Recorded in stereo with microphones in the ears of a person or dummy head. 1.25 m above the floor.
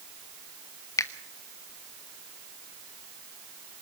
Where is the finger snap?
20° left (ahead or behind), 1.3 m.